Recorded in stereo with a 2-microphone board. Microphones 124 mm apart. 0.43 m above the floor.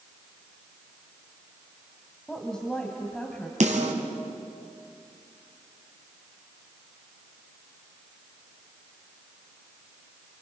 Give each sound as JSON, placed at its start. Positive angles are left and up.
{"t": 2.3, "sound": "a woman speaking", "side_deg": 5, "distance_m": 2.5}
{"t": 3.6, "sound": "a snare drum", "side_deg": -70, "distance_m": 3.5}